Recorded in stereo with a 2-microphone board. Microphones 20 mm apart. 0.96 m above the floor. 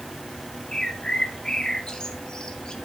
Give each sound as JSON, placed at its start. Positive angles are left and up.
{"t": 0.7, "sound": "a bird", "side_deg": 40, "distance_m": 1.7}